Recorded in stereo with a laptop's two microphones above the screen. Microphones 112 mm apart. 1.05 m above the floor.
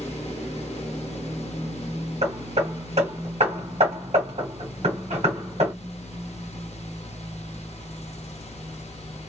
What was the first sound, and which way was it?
A fan, 70° left (ahead or behind).